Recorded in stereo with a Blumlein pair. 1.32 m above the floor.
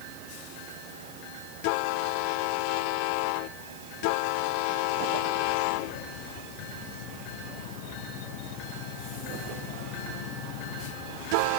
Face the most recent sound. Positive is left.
No sound to turn to.